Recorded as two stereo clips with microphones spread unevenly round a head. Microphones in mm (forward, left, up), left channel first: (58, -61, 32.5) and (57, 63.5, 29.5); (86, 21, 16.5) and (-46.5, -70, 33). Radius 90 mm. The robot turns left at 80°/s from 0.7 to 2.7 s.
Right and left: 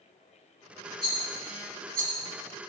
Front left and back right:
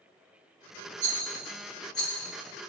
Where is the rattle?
160° left, 4 m; by 2.1 s 70° left, 4 m.